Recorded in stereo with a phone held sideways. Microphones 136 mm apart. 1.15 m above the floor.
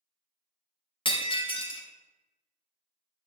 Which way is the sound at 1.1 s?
40° left (ahead or behind).